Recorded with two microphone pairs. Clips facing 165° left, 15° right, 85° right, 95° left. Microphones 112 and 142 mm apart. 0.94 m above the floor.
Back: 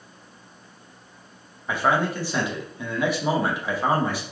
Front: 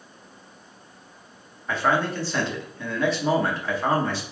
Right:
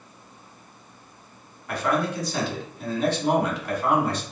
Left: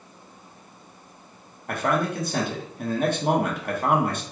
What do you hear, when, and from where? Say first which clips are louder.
1.7 s a man speaking: back 1 dB, even; 85° left, 0.8 m